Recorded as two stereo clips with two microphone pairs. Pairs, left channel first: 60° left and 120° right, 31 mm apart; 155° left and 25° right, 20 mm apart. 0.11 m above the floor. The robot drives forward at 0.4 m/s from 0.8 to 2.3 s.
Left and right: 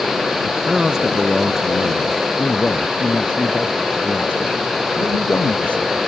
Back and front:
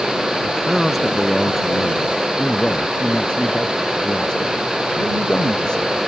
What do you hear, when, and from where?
0.4 s a man speaking: 90° right; by 2.1 s 135° right
2.4 s a man speaking: 110° left